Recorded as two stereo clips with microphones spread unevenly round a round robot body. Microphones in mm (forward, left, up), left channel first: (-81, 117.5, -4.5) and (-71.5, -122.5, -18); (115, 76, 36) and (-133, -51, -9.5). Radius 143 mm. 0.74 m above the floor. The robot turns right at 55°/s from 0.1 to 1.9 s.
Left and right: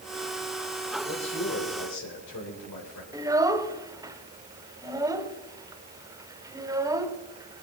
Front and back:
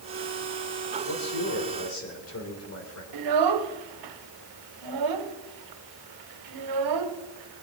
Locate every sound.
1.1 s a man speaking: 25° left, 3.5 m; by 3.0 s 70° left, 3.5 m
3.1 s a child speaking: 165° right, 1.3 m